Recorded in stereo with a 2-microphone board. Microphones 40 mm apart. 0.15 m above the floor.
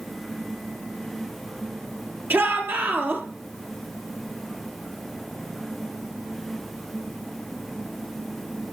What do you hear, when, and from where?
2.3 s a shout: 70° right (ahead or behind), 4.5 m